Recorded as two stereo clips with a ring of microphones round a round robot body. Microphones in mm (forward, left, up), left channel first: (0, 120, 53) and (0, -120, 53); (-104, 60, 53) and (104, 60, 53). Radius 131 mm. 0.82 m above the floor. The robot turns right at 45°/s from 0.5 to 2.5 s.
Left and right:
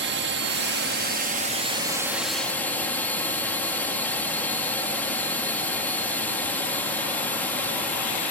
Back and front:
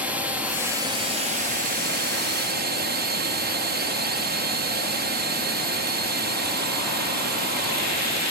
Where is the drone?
80° right; by 8.3 s 10° left.